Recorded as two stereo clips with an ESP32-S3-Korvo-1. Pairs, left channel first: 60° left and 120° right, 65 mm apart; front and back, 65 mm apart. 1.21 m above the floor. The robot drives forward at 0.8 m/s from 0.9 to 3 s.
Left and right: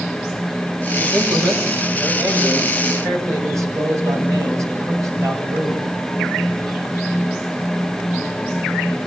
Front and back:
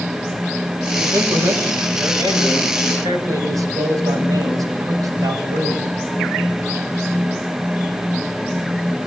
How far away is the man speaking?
About 6 m.